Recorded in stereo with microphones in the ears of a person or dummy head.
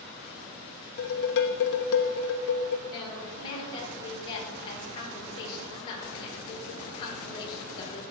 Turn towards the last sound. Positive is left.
turn(degrees=25)  # may be behind; listen again after turning